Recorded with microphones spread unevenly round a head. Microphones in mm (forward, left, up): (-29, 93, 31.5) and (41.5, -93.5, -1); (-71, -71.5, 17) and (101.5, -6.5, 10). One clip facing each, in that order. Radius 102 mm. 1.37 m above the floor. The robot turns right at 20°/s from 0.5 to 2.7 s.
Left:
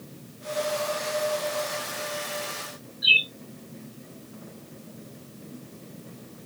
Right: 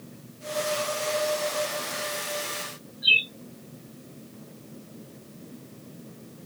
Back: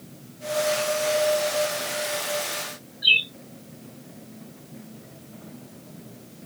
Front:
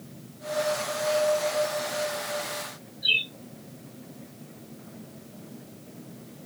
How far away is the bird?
About 1.8 m.